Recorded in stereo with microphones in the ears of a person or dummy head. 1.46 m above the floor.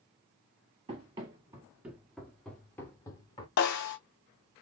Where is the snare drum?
55° left (ahead or behind), 0.8 m.